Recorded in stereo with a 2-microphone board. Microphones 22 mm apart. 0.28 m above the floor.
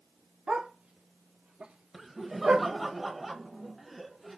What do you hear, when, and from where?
0.5 s a dog barking: 70° right (ahead or behind), 1.7 m; by 2.7 s 60° right (ahead or behind), 1.1 m
1.9 s laughter: centre (ahead or behind), 1.0 m